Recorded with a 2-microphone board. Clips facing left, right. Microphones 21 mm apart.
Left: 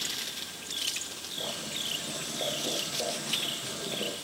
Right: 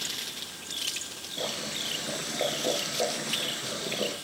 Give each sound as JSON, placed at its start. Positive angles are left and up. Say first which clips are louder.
{"t": 1.4, "sound": "boiling", "louder": "right 3 dB", "side_deg": -35, "distance_m": 4.0}